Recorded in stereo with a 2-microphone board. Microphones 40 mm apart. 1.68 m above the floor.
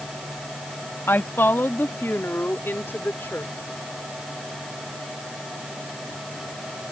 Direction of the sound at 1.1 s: 65° left (ahead or behind).